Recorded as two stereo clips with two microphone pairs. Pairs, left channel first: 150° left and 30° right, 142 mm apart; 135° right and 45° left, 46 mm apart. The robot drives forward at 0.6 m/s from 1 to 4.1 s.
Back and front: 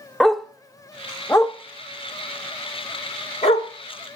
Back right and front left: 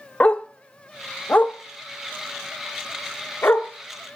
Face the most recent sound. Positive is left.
turn(degrees=-175)